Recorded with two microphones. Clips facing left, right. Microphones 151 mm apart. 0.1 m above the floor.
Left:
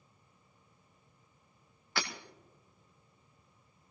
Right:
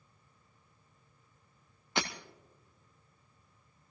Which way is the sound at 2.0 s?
20° right (ahead or behind).